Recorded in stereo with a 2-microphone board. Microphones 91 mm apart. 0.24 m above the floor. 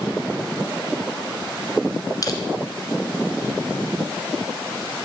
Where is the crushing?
40° left (ahead or behind), 1.4 m.